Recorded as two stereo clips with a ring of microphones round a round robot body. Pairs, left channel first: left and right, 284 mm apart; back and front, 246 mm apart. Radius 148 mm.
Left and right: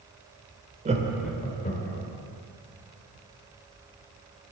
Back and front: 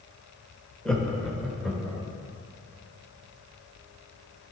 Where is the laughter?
100° right, 0.9 m; by 2.0 s 85° left, 1.1 m.